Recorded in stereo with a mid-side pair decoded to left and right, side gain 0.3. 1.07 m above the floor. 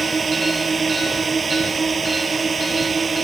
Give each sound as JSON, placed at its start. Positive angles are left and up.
{"t": 0.0, "sound": "a drone", "azimuth_deg": -45}